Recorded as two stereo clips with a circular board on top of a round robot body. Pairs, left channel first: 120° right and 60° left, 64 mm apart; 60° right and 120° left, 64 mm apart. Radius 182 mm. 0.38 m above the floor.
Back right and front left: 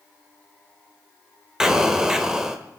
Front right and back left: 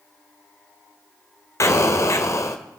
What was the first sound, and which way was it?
An explosion, 20° right.